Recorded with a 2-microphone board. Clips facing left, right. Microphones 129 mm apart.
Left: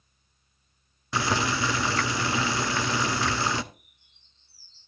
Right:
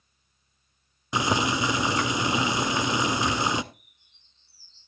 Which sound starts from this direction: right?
A bird, at 3.7 s.